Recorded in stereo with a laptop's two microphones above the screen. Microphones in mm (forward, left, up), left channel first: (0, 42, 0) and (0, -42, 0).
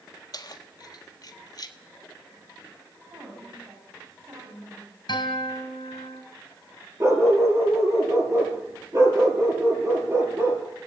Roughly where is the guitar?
Left.